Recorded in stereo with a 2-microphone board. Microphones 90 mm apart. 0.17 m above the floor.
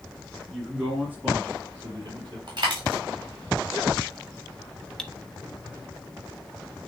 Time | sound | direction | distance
0.5 | a man speaking | 5° right (ahead or behind) | 3 m
2.5 | a dropped coin | 50° right (ahead or behind) | 3 m
5.0 | cutlery clinking | 5° left (ahead or behind) | 0.6 m